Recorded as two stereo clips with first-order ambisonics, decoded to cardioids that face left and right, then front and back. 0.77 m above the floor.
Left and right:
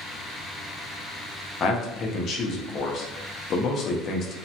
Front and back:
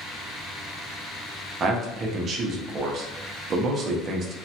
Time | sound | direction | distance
1.6 | a man speaking | 130° left | 0.5 m